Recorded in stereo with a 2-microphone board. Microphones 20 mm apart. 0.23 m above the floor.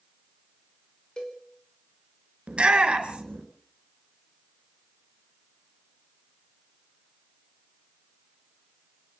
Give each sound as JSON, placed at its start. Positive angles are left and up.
{"t": 1.2, "sound": "a cowbell", "side_deg": 35, "distance_m": 4.5}
{"t": 2.5, "sound": "a shout", "side_deg": -55, "distance_m": 4.0}